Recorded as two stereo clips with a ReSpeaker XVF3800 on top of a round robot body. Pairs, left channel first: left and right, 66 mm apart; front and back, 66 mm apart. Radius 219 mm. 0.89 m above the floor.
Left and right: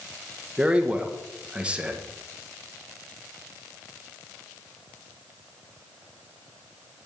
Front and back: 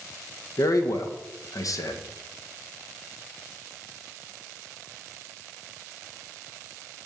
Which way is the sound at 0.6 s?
15° right.